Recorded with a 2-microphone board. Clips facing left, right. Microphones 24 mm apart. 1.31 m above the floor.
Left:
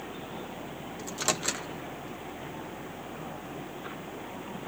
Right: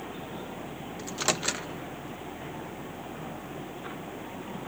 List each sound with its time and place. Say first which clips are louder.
1.0 s a microwave: right 2 dB; 15° right (ahead or behind), 1.0 m